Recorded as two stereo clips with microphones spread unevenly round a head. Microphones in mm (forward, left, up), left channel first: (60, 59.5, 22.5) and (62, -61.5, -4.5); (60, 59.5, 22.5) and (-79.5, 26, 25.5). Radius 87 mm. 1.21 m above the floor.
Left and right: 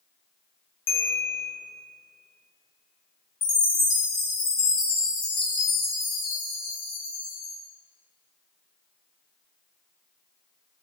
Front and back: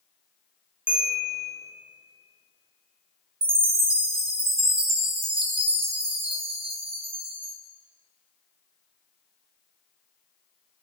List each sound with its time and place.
0.9 s a bell: 110° left, 1.0 m
3.4 s a chime: 155° left, 0.7 m